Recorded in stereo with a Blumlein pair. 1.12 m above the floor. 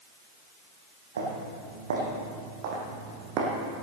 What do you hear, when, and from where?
1.2 s footsteps: 65° right, 4 m; by 3.8 s 30° right, 3 m